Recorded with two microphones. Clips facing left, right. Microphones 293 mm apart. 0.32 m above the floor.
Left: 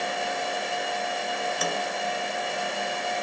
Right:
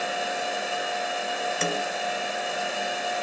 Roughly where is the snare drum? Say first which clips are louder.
Right 3 dB; right.